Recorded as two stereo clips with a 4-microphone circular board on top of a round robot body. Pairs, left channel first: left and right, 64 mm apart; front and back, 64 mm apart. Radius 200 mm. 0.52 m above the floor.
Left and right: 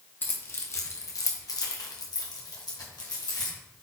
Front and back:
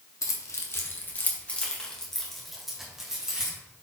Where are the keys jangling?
35° left, 1.2 m; by 3.6 s 100° left, 2 m.